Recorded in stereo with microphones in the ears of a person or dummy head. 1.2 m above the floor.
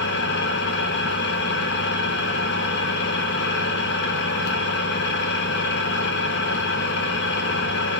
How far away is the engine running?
About 0.8 m.